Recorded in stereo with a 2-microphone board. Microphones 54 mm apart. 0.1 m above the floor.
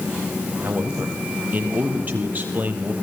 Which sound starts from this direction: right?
A man speaking, at 0.6 s.